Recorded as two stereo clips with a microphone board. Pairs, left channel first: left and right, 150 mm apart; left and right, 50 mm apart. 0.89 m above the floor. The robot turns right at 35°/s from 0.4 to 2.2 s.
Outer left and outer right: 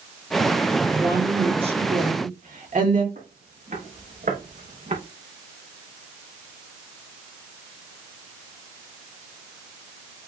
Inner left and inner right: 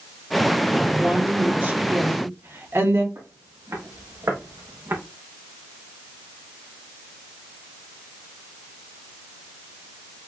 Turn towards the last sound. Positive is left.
turn(degrees=-60)  # may be behind; listen again after turning